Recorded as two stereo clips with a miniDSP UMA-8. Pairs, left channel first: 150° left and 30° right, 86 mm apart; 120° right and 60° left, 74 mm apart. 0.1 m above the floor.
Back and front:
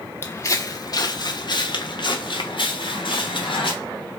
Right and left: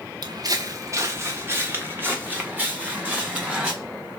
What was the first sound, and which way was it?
Footsteps, 85° left.